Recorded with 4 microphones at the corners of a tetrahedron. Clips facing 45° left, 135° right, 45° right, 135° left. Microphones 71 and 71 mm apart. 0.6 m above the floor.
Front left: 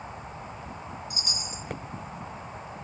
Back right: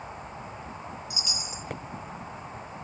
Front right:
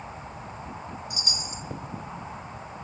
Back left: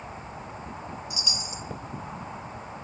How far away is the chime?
About 0.9 m.